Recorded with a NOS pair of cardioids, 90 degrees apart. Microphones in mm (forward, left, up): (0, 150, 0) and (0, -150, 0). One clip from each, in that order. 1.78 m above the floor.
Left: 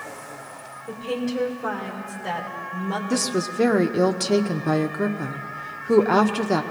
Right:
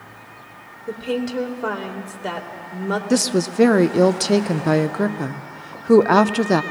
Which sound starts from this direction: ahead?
A woman speaking, at 3.1 s.